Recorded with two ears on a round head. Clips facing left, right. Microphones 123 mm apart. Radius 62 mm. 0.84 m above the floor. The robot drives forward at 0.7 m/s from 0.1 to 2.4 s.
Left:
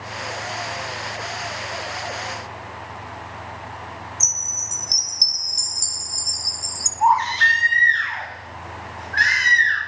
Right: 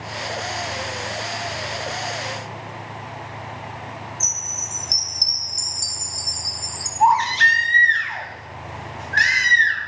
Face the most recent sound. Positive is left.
turn(degrees=-55)  # may be behind; listen again after turning